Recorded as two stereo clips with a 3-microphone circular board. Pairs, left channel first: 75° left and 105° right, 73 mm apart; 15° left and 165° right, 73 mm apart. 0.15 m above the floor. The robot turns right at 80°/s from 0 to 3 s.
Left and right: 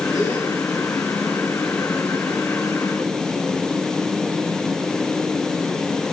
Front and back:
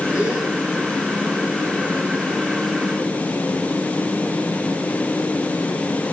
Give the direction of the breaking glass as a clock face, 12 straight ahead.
No breaking glass in this recording.